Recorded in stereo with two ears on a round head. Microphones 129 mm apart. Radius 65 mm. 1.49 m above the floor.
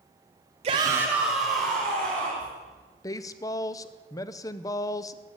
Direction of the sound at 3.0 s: 25° left (ahead or behind).